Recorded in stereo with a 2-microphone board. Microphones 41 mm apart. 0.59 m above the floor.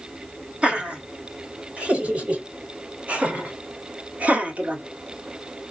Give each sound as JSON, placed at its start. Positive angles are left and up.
{"t": 0.6, "sound": "laughter", "side_deg": -30, "distance_m": 4.0}